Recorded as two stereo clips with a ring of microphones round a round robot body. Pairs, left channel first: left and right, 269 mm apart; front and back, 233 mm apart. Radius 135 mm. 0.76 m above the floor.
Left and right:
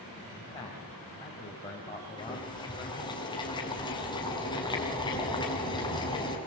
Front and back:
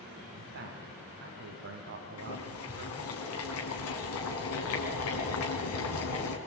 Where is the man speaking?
165° left, 4 m.